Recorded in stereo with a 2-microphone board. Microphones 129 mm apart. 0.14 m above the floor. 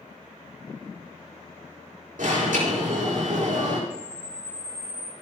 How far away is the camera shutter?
About 2 m.